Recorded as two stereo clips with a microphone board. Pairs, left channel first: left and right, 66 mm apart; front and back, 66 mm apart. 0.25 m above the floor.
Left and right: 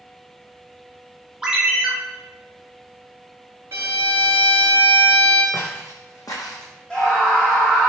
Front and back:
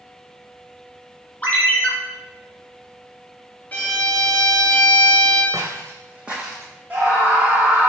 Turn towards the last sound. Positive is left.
turn(degrees=145)